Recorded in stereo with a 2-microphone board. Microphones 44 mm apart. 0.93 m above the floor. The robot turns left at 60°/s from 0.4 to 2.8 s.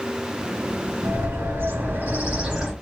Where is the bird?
70° right, 3 m; by 2.7 s 170° right, 3 m.